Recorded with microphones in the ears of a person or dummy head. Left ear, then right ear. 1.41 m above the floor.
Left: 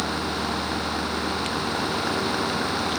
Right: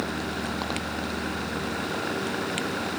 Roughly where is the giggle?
No giggle in this recording.